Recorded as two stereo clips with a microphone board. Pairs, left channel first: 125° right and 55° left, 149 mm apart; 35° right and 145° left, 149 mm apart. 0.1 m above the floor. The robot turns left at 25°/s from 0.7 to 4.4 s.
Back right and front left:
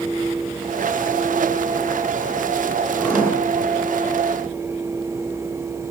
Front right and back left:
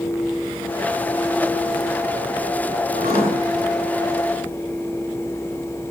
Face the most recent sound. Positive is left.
turn(degrees=125)